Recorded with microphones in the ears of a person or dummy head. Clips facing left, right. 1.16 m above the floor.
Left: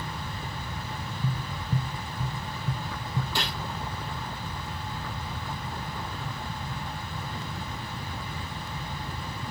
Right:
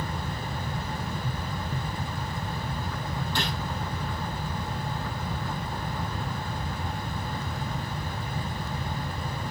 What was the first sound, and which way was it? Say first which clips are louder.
Tapping: even; 15° left (ahead or behind).